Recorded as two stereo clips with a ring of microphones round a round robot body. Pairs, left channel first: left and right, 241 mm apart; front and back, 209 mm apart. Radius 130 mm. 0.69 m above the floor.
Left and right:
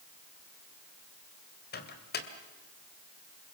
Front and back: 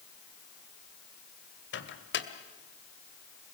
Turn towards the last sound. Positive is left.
turn(degrees=35)